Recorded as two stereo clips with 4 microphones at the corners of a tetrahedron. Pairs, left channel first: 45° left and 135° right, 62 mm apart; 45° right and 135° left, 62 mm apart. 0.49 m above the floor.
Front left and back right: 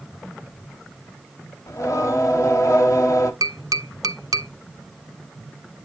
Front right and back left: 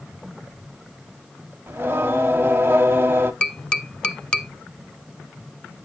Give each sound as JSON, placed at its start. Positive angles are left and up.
{"t": 1.7, "sound": "singing", "azimuth_deg": 80, "distance_m": 0.9}
{"t": 3.4, "sound": "tapping", "azimuth_deg": -115, "distance_m": 0.7}